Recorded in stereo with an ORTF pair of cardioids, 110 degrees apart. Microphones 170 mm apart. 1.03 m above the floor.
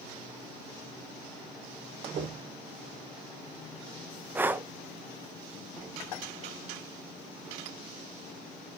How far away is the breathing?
About 0.8 m.